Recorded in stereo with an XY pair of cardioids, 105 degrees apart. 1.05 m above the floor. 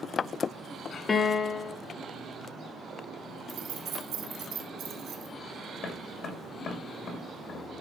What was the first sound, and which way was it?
A piano, 40° left.